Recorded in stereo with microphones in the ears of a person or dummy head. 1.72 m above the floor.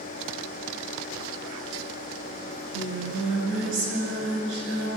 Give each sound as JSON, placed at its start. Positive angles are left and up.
{"t": 2.5, "sound": "singing", "side_deg": -70, "distance_m": 9.0}